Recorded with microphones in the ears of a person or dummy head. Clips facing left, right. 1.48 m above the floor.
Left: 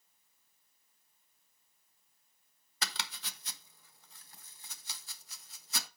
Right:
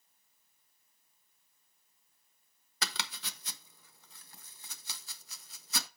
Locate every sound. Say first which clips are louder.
2.8 s chopping: right 2 dB; 60° right (ahead or behind), 0.9 m